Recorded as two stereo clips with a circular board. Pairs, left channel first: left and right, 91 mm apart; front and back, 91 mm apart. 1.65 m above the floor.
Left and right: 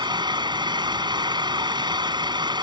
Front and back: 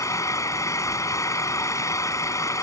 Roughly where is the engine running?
Ahead right.